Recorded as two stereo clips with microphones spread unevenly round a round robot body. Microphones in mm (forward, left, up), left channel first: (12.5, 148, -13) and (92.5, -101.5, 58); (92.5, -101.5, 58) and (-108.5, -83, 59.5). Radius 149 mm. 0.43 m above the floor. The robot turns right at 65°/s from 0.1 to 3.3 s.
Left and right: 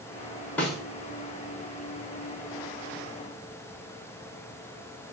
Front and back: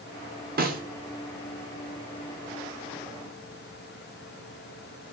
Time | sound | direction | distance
0.6 | a snare drum | 175° left | 0.9 m